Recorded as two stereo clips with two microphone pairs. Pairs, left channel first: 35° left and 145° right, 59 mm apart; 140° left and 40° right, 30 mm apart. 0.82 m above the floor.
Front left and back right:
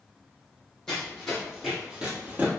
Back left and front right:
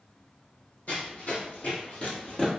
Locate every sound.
0.9 s running footsteps: 110° left, 1.7 m; by 2.5 s straight behind, 1.0 m